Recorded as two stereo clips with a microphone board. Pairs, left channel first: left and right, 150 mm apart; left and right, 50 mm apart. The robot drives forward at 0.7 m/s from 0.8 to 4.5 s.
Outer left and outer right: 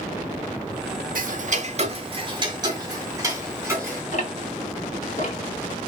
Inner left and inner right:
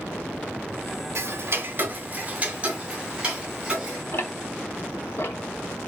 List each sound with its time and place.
1.1 s ticking: 70° right (ahead or behind), 0.7 m; by 4.0 s 15° right (ahead or behind), 2.5 m
4.1 s ticking: 55° left (ahead or behind), 0.9 m; by 5.9 s 50° left (ahead or behind), 1.0 m